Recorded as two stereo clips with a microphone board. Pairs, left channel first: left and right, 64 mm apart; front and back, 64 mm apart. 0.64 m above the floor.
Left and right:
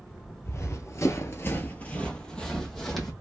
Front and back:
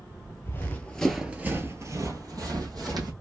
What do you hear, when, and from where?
0.5 s running footsteps: 50° left, 1.0 m; by 3.1 s straight behind, 1.9 m